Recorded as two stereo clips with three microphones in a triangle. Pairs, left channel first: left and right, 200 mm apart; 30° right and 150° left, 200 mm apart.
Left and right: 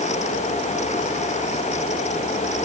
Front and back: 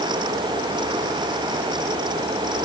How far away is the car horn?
No car horn in this recording.